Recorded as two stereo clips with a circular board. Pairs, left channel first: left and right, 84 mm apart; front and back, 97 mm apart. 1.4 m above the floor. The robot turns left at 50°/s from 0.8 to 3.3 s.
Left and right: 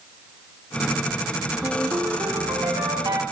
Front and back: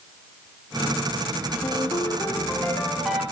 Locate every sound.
1.6 s a ringtone: 25° right, 2.0 m; by 3.2 s 105° right, 2.0 m